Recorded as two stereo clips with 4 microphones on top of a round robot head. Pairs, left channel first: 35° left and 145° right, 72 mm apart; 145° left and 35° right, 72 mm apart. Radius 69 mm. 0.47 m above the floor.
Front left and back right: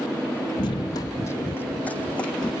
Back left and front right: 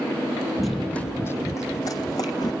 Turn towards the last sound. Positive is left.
turn(degrees=110)